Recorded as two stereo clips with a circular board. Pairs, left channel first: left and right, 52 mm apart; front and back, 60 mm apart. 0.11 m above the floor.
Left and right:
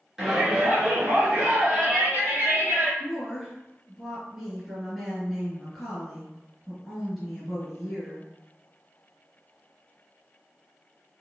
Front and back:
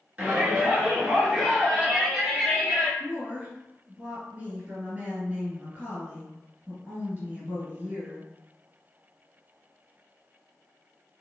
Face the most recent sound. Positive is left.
turn(degrees=-160)